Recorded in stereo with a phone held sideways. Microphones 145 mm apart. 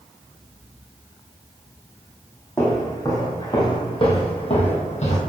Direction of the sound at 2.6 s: 20° left (ahead or behind).